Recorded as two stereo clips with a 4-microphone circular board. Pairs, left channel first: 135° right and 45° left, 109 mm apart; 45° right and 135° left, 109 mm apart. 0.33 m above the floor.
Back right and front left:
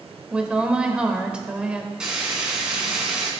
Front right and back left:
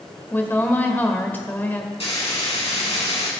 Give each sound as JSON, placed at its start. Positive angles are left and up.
{"t": 0.3, "sound": "a woman speaking", "azimuth_deg": -20, "distance_m": 1.4}
{"t": 2.0, "sound": "frying", "azimuth_deg": -40, "distance_m": 4.0}